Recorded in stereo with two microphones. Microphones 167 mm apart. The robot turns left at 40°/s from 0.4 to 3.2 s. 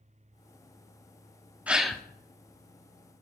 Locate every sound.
1.7 s a gasp: 10° right (ahead or behind), 0.5 m; by 2.0 s 5° left (ahead or behind), 0.5 m